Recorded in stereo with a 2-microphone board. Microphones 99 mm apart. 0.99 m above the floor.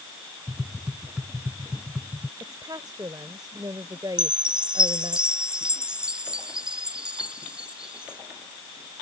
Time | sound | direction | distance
0.5 | tapping | 10° right (ahead or behind) | ?
2.4 | a woman speaking | 40° right (ahead or behind) | ?
4.2 | a chime | 10° right (ahead or behind) | ?